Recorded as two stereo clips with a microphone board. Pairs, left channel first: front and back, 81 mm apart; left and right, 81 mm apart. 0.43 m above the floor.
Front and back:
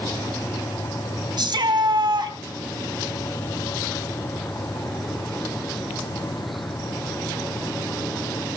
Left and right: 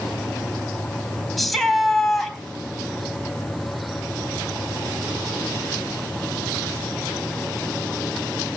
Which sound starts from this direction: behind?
A shout, at 1.4 s.